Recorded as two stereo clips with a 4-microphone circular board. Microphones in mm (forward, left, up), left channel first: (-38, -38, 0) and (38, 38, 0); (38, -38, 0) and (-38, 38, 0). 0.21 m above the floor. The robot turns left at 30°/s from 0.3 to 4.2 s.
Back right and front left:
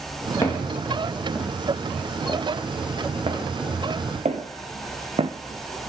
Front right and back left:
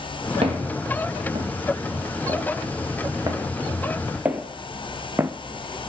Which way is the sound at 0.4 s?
160° left.